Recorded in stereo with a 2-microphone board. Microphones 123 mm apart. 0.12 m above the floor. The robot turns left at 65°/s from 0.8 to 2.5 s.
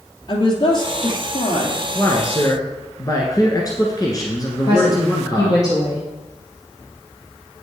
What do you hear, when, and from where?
0.3 s a woman speaking: 130° left, 2 m; by 1.9 s 60° left, 2 m
1.9 s a man speaking: 140° left, 1.4 m; by 5.6 s 105° left, 1.4 m
4.7 s a woman speaking: 30° left (ahead or behind), 2.5 m